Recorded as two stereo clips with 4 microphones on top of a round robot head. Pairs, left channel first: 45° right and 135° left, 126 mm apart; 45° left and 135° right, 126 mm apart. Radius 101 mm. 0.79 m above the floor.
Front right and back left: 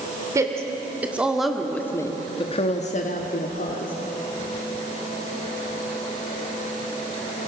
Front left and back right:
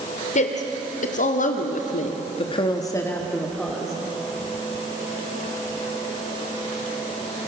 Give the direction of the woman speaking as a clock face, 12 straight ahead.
10 o'clock.